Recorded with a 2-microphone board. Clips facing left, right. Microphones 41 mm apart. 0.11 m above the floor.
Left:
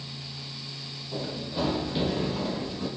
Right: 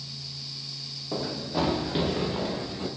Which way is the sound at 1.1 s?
85° right.